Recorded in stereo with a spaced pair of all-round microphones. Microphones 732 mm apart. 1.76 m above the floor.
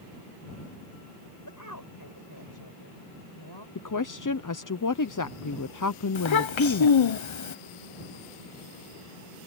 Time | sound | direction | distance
1.4 | a woman speaking | 20° left (ahead or behind) | ?
3.8 | a woman speaking | 25° left (ahead or behind) | ?
6.2 | a child speaking | 40° left (ahead or behind) | ?